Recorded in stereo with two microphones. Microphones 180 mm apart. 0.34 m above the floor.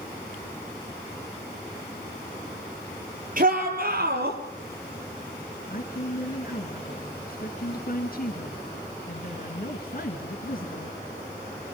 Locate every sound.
3.4 s a shout: 50° right (ahead or behind), 6.5 m; by 4.4 s 60° right (ahead or behind), 7.5 m
5.7 s a woman speaking: 55° left (ahead or behind), 3 m